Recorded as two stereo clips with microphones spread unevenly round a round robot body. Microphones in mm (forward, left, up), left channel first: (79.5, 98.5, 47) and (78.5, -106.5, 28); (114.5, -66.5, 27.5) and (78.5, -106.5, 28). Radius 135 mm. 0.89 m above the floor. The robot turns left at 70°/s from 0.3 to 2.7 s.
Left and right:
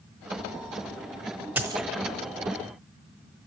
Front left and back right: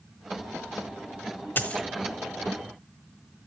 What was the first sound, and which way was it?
A dropped coin, 5° right.